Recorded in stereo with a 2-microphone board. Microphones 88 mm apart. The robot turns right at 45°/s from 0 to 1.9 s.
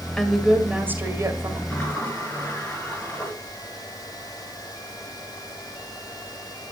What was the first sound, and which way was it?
A woman speaking, 175° left.